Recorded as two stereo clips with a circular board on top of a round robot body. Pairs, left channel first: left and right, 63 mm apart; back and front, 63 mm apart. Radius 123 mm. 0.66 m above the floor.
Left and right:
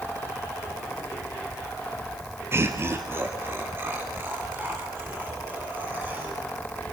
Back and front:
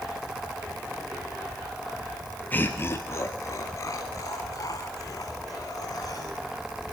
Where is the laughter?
125° right, 1.6 m; by 6.4 s 150° right, 6 m.